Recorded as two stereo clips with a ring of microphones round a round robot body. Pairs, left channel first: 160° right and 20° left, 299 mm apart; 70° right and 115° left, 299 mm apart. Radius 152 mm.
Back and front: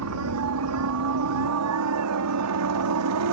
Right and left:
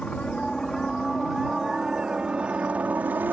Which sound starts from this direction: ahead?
A helicopter, at 0.0 s.